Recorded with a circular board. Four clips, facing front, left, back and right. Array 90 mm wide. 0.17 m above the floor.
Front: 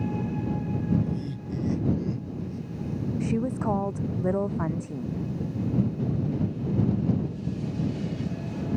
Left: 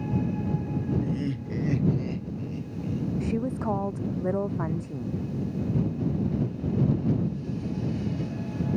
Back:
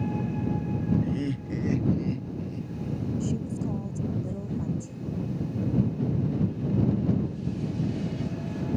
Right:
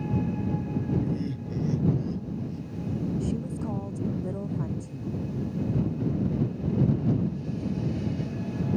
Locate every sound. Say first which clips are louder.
1.0 s laughter: left 1 dB, back 3 dB; 160° left; by 3.1 s 100° left
3.2 s a woman speaking: left 3 dB, front 4 dB; 35° left